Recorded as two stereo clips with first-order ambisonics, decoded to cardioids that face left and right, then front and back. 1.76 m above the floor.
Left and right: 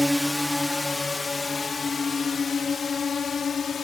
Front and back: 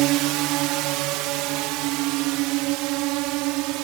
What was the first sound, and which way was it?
A drone, straight behind.